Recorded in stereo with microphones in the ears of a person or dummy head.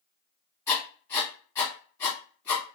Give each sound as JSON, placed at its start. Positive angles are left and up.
{"t": 0.7, "sound": "writing", "side_deg": 15, "distance_m": 1.2}